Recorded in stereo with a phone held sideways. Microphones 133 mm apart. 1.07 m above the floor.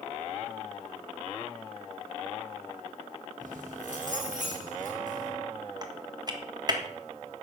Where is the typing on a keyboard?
30° right (ahead or behind), 1.5 m.